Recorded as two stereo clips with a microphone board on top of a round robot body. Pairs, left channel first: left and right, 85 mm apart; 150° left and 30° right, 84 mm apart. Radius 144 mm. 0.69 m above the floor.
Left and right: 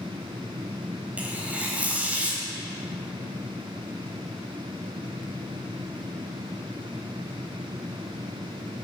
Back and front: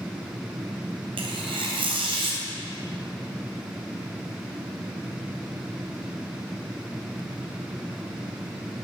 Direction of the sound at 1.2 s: 15° right.